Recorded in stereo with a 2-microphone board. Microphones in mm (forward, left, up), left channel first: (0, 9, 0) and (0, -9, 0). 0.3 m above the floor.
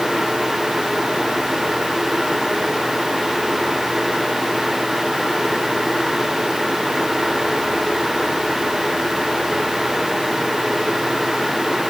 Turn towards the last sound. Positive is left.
No sound to turn to.